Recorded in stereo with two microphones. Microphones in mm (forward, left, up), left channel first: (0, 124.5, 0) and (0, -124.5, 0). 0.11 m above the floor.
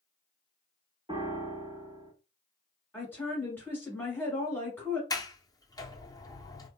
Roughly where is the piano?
Right.